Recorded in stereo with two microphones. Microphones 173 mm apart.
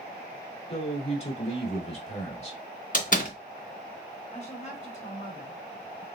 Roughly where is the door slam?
Left.